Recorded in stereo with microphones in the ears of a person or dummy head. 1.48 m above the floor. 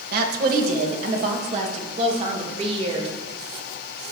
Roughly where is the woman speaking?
Right.